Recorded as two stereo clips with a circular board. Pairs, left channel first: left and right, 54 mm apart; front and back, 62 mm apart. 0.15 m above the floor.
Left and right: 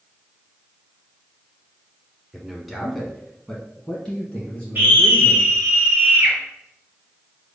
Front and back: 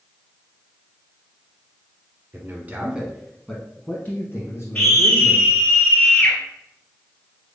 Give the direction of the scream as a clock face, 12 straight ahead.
2 o'clock.